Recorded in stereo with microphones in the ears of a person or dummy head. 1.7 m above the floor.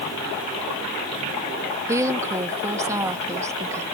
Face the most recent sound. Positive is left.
turn(degrees=-15)  # may be behind; listen again after turning